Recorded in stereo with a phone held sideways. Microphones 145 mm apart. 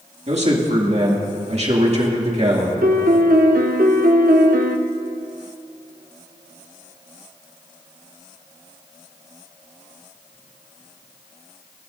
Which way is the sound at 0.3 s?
50° right (ahead or behind).